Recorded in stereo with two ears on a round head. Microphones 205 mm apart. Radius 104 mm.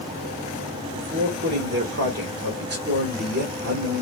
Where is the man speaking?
50° right (ahead or behind), 1.9 m.